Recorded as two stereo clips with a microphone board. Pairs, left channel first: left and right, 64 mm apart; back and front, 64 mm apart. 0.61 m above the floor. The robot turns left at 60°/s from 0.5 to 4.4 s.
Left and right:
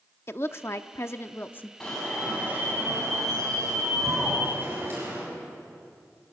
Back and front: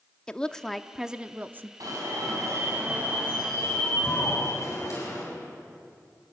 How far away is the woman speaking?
About 0.7 m.